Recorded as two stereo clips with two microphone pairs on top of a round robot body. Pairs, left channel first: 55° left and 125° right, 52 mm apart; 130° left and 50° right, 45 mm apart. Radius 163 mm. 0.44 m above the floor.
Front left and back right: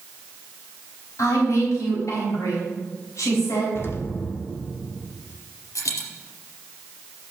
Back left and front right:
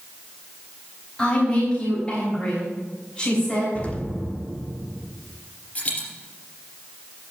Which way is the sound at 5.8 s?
70° left.